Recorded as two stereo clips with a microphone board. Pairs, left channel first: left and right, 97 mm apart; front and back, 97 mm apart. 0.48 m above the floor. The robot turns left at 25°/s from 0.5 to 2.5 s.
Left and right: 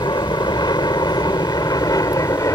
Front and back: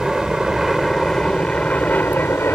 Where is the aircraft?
95° left; by 2.6 s 55° left.